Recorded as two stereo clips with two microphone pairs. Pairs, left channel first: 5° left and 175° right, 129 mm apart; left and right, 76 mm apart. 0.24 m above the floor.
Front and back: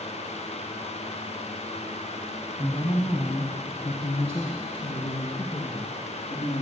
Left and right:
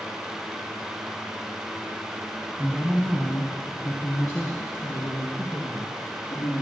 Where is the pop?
No pop in this recording.